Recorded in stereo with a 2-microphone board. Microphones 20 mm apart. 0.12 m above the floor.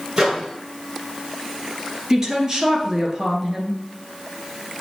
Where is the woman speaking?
25° right (ahead or behind), 1.6 m.